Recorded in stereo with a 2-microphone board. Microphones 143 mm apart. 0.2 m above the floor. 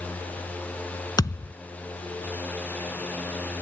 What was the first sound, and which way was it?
A thud, 25° left (ahead or behind).